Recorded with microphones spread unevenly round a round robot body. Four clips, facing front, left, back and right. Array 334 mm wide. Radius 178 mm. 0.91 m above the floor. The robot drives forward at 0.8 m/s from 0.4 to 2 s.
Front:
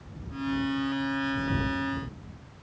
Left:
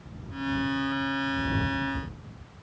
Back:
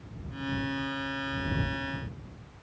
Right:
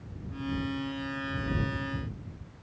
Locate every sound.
Only background noise.